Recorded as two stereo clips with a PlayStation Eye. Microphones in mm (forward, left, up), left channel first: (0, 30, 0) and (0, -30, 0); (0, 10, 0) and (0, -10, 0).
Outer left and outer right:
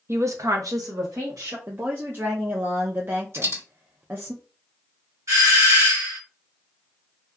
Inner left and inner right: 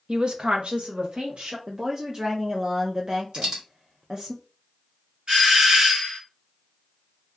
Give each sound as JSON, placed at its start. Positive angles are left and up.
{"t": 0.1, "sound": "a woman speaking", "side_deg": -45, "distance_m": 0.7}
{"t": 1.7, "sound": "a woman speaking", "side_deg": -40, "distance_m": 0.5}
{"t": 3.3, "sound": "a dropped coin", "side_deg": -55, "distance_m": 1.8}
{"t": 5.3, "sound": "a doorbell", "side_deg": -60, "distance_m": 1.6}